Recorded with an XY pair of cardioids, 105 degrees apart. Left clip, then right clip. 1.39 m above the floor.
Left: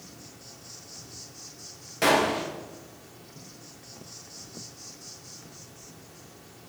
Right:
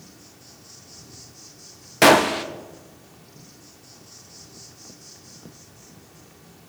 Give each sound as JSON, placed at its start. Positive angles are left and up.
{"t": 0.0, "sound": "an insect", "azimuth_deg": 5, "distance_m": 2.5}
{"t": 2.0, "sound": "a gunshot", "azimuth_deg": -70, "distance_m": 1.0}